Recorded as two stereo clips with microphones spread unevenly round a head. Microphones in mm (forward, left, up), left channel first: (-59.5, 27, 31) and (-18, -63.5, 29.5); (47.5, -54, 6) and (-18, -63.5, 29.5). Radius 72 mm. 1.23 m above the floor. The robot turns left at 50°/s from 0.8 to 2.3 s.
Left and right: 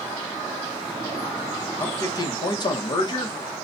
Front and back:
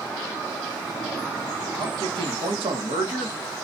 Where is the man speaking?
175° right, 1.1 m; by 3.4 s 160° left, 1.1 m.